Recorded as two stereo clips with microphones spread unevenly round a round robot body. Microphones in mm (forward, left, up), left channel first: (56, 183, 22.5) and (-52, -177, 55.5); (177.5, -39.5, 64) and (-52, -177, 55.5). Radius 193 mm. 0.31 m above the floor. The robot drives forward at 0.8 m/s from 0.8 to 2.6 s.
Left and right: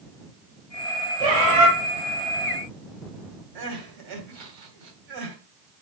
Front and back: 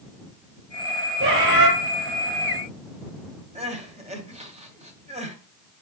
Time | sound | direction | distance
1.2 | a bird | 110° right | 7 m
3.5 | crying | 85° right | 2.5 m